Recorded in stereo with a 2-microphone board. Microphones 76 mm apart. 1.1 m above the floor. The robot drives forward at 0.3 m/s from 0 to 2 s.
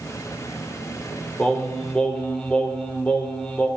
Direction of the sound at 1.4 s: 15° left (ahead or behind).